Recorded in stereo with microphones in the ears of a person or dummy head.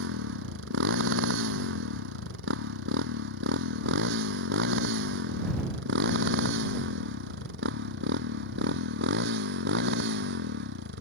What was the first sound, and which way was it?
A motorcycle, 70° right (ahead or behind).